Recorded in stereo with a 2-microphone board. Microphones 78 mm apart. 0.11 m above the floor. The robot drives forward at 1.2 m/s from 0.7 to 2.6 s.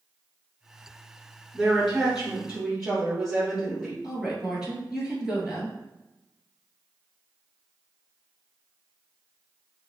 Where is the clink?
I don't hear a clink.